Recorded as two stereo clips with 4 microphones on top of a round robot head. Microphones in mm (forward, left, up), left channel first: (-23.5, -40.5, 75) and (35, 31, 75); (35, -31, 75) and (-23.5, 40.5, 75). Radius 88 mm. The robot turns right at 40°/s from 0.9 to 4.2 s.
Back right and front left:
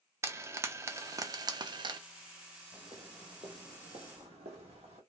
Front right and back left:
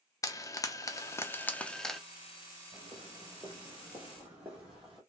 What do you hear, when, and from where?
0.2 s frying: 5° right, 0.5 m; by 2.0 s 40° left, 0.5 m
2.7 s footsteps: 100° left, 1.2 m; by 5.0 s 45° left, 1.5 m